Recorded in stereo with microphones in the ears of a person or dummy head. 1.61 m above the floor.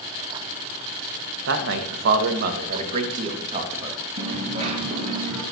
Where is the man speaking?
60° right (ahead or behind), 2 m; by 4.0 s 20° right (ahead or behind), 2.5 m.